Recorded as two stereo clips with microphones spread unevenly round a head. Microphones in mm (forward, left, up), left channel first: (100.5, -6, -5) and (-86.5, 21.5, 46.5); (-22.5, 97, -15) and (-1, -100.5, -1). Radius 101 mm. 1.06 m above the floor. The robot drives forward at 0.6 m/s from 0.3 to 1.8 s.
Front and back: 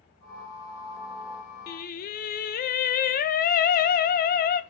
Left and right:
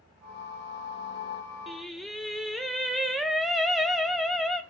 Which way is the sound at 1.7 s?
5° left.